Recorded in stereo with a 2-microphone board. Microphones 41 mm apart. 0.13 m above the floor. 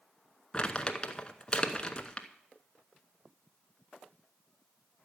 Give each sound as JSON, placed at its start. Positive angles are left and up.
{"t": 0.5, "sound": "crumpling", "side_deg": 25, "distance_m": 0.8}